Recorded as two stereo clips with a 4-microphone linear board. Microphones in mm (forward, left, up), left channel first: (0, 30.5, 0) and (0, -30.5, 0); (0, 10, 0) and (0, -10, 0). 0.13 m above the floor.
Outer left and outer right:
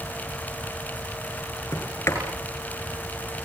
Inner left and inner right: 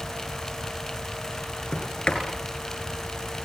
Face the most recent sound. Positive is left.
turn(degrees=50)  # may be behind; listen again after turning